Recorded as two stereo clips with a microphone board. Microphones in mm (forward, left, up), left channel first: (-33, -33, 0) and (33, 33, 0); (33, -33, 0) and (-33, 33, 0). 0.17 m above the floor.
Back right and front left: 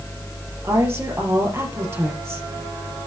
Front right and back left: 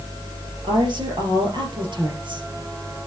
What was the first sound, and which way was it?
A woman speaking, 105° left.